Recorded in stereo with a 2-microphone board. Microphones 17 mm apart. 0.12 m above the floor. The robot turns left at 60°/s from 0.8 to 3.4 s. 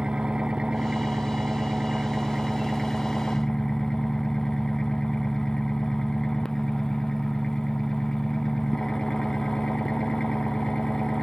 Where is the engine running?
55° right; by 11.2 s 150° left.